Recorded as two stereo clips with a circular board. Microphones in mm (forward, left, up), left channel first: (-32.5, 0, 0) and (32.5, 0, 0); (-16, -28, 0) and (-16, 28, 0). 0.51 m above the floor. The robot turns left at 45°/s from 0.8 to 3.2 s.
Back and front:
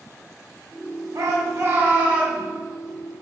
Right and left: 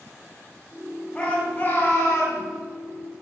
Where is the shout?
20° right, 2.5 m; by 2.4 s 75° right, 2.5 m.